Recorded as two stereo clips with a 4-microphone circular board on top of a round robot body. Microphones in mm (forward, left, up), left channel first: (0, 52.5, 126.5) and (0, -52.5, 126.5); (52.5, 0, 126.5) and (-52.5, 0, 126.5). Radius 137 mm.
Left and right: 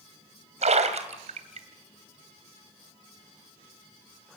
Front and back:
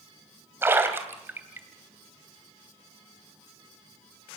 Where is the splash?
110° right, 2.5 m.